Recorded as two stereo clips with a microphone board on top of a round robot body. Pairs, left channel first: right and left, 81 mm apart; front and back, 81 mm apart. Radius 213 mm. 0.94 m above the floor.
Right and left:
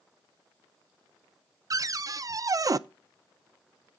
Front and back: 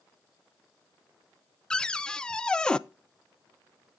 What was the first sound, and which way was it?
A cupboard door, 75° left.